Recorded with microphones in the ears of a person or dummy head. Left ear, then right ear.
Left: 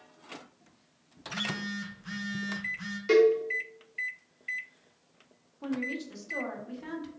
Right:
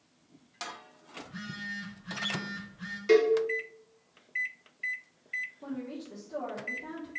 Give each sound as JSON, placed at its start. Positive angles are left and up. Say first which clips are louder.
{"t": 1.2, "sound": "a phone buzzing", "louder": "left 7 dB", "side_deg": 55, "distance_m": 0.8}
{"t": 3.1, "sound": "a cowbell", "louder": "left 1 dB", "side_deg": 0, "distance_m": 0.5}
{"t": 5.6, "sound": "a woman speaking", "louder": "left 6 dB", "side_deg": 35, "distance_m": 1.0}